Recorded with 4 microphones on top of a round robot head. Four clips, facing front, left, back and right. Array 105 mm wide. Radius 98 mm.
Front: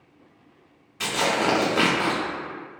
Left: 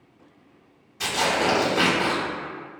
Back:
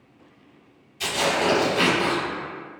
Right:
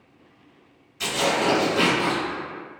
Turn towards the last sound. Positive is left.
turn(degrees=20)